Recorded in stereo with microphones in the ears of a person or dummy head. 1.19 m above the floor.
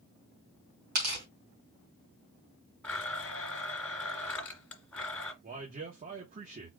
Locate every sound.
0.9 s tearing paper: 45° right (ahead or behind), 2.5 m
2.8 s a blender: 10° left (ahead or behind), 1.6 m
5.4 s a man speaking: 35° right (ahead or behind), 1.1 m